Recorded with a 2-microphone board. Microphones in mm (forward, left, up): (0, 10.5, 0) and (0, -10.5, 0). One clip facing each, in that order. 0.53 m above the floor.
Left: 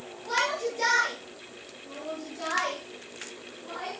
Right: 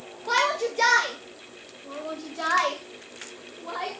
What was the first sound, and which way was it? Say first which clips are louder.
A shout: right 4 dB; 55° right (ahead or behind).